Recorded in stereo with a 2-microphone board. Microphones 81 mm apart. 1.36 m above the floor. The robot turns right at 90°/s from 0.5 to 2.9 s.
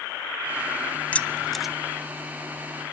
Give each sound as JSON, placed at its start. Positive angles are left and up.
{"t": 1.1, "sound": "keys jangling", "side_deg": 20, "distance_m": 0.6}